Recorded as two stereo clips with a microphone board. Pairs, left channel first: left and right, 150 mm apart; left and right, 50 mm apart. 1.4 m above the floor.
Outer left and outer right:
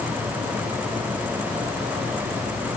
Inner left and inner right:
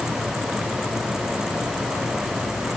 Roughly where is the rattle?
No rattle in this recording.